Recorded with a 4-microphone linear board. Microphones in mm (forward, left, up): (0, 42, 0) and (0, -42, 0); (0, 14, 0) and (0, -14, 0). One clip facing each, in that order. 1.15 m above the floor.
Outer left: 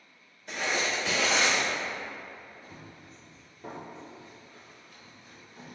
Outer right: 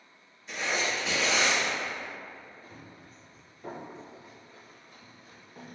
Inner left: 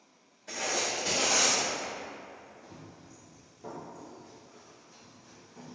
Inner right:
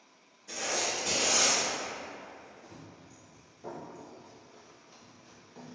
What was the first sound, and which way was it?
Writing, 65° left (ahead or behind).